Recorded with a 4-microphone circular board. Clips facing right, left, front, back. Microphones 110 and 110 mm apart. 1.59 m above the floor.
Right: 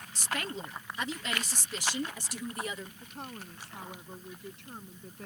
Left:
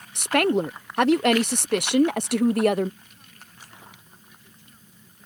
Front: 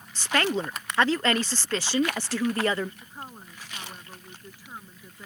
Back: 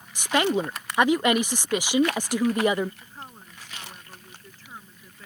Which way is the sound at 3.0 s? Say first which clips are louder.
Right 10 dB, front 2 dB; 80° right.